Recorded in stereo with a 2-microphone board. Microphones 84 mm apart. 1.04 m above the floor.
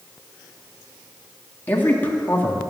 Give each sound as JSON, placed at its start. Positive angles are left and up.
{"t": 1.7, "sound": "a man speaking", "side_deg": 20, "distance_m": 2.5}